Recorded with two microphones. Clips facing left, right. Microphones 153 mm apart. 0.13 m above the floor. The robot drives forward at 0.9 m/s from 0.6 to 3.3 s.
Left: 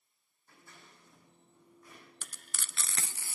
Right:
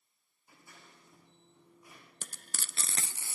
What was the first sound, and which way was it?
Scissors, 15° right (ahead or behind).